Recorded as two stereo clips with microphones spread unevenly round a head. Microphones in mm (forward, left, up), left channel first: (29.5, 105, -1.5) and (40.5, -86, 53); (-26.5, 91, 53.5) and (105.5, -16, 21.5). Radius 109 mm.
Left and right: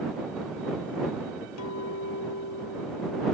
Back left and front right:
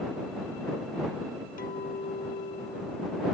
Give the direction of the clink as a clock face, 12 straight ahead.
9 o'clock.